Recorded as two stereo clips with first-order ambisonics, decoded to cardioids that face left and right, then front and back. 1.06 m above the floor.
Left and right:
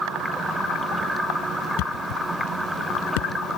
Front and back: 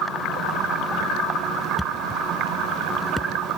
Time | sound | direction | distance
1.8 | a thud | 90° left | ?